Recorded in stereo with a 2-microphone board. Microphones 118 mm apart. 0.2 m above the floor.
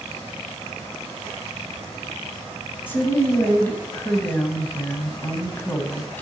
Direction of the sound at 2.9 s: 20° left (ahead or behind).